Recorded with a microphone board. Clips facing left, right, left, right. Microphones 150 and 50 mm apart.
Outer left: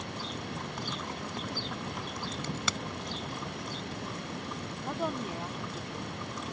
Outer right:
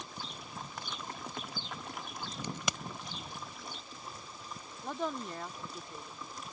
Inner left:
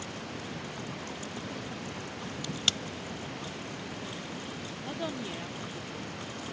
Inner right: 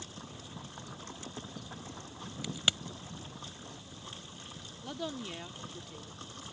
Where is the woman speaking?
10° left (ahead or behind).